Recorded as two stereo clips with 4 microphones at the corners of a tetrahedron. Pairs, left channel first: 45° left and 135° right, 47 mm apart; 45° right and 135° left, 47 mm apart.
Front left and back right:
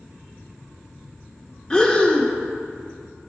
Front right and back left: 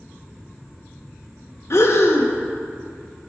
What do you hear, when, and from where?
1.7 s breathing: 25° right, 0.7 m